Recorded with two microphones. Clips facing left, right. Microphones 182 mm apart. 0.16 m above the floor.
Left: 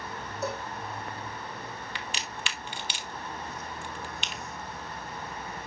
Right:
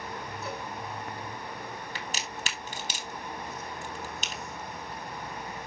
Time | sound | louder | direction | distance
0.4 | a cowbell | left 6 dB | 80° left | 5.5 m
1.9 | a crack | right 1 dB | 40° right (ahead or behind) | 1.4 m